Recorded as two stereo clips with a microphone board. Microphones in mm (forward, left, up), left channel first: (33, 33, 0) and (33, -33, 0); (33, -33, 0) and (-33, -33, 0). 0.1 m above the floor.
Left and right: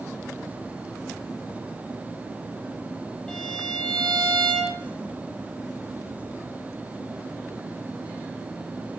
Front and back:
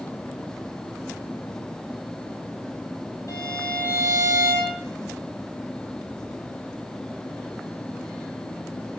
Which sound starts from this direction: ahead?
A violin, at 3.3 s.